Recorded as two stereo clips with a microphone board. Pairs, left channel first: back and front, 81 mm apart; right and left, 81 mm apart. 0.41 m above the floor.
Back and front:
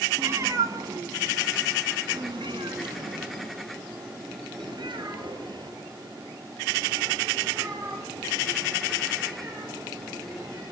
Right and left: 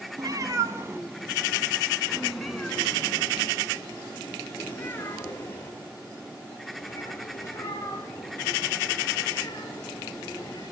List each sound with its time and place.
0.2 s a cat meowing: 55° left, 1.7 m; by 10.6 s 35° right, 8.5 m